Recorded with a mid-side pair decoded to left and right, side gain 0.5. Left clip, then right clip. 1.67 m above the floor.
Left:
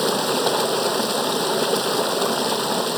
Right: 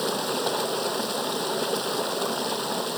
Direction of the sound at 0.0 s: 40° left.